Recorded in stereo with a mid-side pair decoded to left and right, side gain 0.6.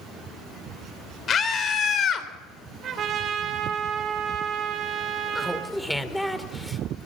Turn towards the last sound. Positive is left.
turn(degrees=5)